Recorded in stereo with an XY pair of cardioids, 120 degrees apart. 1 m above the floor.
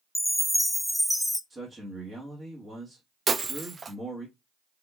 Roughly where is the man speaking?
Ahead.